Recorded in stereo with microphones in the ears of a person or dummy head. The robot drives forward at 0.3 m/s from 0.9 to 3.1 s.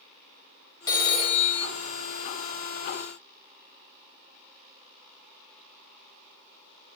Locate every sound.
0.9 s a phone ringing: 25° left (ahead or behind), 0.7 m; by 1.7 s 35° left (ahead or behind), 0.5 m